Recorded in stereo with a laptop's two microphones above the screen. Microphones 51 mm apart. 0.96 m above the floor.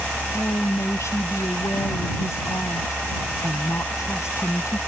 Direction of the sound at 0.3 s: 75° left (ahead or behind).